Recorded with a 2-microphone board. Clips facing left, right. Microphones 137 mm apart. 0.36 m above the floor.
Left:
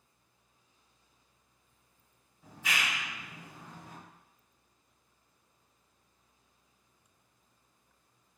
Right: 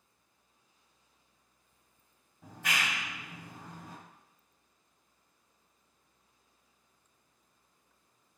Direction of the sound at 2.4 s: 60° right (ahead or behind).